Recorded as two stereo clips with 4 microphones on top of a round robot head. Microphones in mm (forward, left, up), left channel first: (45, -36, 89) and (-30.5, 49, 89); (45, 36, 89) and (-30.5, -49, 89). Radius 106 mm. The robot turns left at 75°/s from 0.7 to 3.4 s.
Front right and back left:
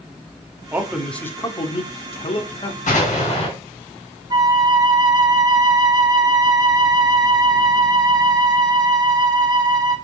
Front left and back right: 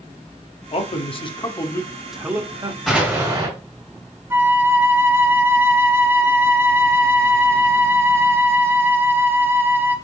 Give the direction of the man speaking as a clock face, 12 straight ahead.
10 o'clock.